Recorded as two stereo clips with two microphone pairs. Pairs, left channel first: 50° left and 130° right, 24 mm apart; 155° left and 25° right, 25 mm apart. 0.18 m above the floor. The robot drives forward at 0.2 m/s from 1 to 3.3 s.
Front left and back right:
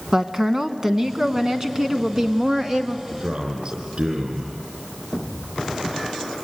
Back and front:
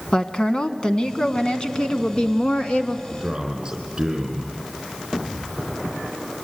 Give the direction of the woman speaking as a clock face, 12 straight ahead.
6 o'clock.